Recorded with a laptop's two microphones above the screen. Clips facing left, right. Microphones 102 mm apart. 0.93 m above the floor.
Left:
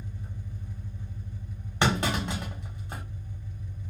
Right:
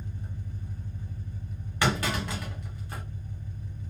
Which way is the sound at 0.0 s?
50° right (ahead or behind).